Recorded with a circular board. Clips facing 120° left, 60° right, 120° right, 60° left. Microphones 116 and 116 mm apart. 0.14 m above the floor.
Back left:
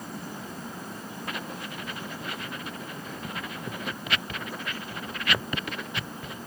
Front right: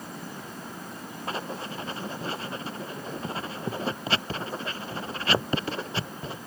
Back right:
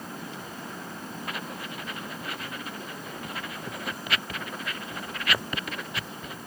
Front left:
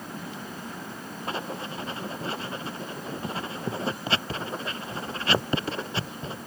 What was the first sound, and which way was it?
Writing, straight ahead.